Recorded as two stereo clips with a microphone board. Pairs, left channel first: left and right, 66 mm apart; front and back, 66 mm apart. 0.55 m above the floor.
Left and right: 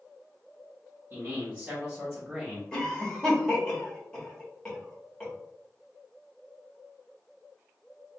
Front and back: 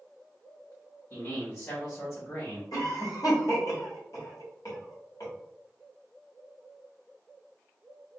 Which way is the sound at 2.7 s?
15° left.